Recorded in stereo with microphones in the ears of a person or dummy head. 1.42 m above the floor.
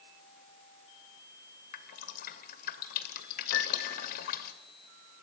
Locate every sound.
1.7 s dripping: 55° left (ahead or behind), 1.9 m
3.5 s a piano: 80° left, 2 m